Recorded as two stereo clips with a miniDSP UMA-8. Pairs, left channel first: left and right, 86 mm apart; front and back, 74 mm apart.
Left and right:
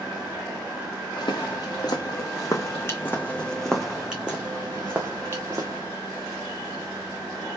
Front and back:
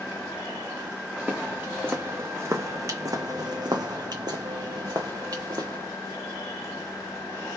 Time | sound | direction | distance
1.2 | footsteps | 105° left | 1.5 m